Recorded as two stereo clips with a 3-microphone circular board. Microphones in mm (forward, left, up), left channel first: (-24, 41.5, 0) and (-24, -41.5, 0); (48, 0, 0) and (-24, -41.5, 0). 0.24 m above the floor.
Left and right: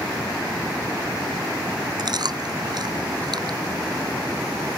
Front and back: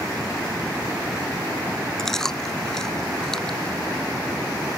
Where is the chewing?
55° right.